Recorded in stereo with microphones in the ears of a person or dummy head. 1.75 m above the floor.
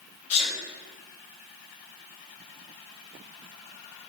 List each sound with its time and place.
0.3 s a sneeze: 45° left (ahead or behind), 3.5 m